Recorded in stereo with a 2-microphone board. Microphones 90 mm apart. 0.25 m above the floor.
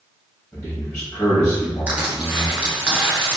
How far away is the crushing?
About 0.9 m.